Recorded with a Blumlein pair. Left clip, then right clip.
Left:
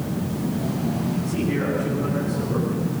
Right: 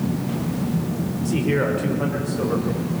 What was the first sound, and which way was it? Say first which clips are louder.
A man speaking: right 5 dB; 60° right.